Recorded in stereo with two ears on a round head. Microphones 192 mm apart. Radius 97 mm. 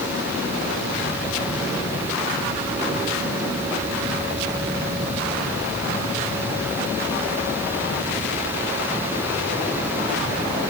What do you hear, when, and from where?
Only background noise.